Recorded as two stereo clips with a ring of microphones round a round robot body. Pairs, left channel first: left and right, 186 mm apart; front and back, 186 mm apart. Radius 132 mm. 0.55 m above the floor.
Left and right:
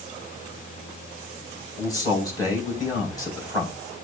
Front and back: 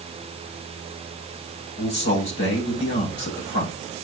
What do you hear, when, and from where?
1.8 s a man speaking: 20° left, 4 m